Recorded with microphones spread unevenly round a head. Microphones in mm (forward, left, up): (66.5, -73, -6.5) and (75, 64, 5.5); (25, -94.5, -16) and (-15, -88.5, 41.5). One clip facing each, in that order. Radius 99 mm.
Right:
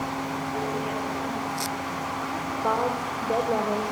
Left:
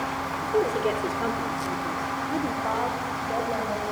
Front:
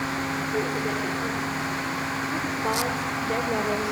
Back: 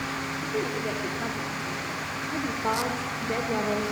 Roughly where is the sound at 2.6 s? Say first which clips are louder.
Right 2 dB, front 1 dB; behind right.